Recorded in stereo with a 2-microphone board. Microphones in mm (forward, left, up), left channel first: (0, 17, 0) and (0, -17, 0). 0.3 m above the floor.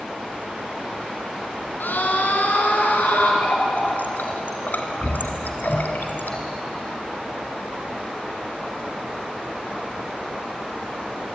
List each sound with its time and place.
1.8 s a scream: 70° left (ahead or behind), 3.5 m; by 3.3 s 75° left (ahead or behind), 4.5 m
3.4 s a running tap: 70° left (ahead or behind), 2.5 m